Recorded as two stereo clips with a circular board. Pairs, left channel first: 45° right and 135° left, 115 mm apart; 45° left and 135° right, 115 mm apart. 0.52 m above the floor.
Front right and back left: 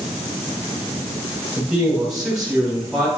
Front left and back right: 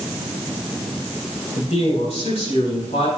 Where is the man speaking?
50° left, 4.5 m.